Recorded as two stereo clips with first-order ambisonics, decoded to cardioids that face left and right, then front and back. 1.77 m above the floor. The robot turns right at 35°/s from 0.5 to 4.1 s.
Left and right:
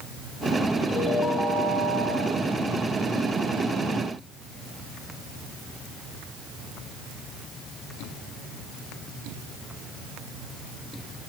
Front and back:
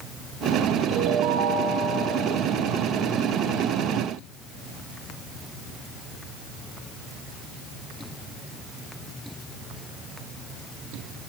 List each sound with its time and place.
0.9 s a ringtone: 155° left, 5.5 m; by 2.2 s 160° right, 5.5 m